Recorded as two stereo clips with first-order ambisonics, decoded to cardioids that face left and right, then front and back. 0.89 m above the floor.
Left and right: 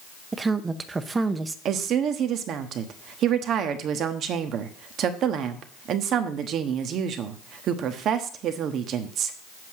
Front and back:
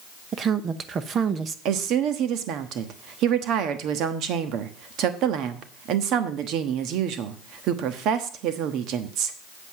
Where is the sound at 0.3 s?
150° right, 0.7 m.